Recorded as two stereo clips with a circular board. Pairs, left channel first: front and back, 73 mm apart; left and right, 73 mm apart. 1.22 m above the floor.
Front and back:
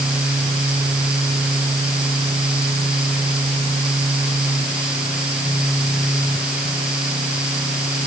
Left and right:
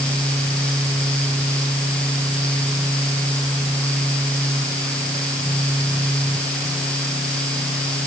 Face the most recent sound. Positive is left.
No sound to turn to.